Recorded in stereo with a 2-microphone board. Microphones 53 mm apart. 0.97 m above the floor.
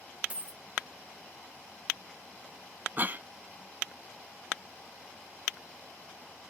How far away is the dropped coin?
About 0.5 m.